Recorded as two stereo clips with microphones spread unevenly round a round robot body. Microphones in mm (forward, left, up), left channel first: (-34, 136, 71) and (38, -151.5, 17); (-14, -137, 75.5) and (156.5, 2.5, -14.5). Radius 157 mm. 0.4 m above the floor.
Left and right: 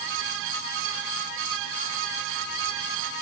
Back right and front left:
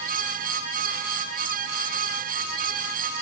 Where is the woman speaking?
No woman speaking in this recording.